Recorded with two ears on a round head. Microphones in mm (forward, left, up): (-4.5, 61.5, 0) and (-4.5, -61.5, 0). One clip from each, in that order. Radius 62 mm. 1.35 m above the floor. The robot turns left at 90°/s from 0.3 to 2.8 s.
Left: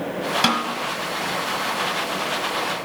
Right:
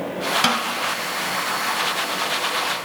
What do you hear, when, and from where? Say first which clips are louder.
0.4 s a snare drum: left 1 dB; 20° right (ahead or behind), 1.3 m; by 0.7 s 10° right (ahead or behind), 1.3 m